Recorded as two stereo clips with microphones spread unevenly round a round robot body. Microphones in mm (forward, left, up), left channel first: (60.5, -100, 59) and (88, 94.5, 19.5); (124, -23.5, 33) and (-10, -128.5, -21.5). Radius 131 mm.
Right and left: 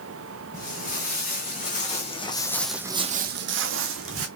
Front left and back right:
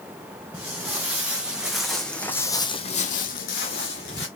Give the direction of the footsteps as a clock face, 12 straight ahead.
2 o'clock.